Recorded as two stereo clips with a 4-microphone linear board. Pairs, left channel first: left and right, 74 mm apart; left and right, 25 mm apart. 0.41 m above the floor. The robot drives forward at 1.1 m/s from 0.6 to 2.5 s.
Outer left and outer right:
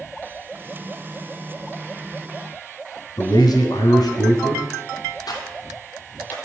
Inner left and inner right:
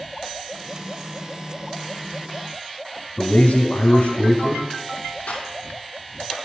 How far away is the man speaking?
About 2.5 m.